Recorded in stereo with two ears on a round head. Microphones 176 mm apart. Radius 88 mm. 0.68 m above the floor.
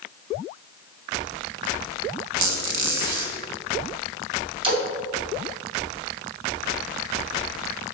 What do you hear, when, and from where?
2.4 s a squeak: 70° right (ahead or behind), 1.9 m
4.6 s a splash: 25° right (ahead or behind), 3 m